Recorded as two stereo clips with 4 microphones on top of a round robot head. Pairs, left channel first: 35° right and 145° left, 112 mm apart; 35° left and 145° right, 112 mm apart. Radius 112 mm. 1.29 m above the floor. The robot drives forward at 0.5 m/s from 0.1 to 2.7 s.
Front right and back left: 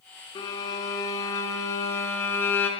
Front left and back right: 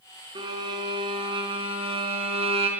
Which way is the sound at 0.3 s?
90° right.